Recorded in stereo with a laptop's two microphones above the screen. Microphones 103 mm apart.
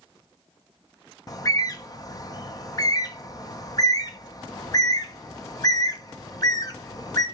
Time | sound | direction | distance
1.3 | a bird | 35° left (ahead or behind) | 0.5 m